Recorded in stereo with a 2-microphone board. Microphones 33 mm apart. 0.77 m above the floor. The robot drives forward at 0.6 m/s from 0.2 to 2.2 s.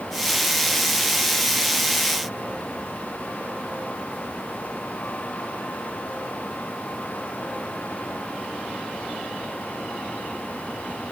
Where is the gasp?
I don't hear a gasp.